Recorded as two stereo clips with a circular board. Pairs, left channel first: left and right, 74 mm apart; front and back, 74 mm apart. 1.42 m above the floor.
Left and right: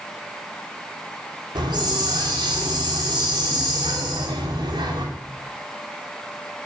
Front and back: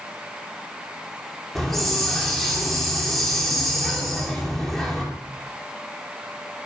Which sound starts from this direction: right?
A hiss, at 1.6 s.